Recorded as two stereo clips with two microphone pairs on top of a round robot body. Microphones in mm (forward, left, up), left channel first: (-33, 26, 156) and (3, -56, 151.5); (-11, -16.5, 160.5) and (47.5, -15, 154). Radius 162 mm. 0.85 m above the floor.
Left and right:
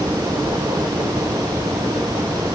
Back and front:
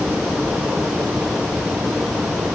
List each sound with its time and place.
Only background noise.